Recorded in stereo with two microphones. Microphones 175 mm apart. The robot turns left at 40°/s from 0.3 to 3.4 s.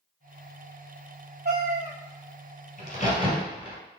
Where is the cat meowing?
60° right (ahead or behind), 0.8 m; by 1.9 s 40° right (ahead or behind), 0.8 m.